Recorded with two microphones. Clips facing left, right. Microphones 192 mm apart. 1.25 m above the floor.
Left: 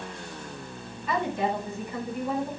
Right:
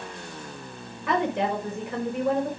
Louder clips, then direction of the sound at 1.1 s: Right 3 dB; 85° right.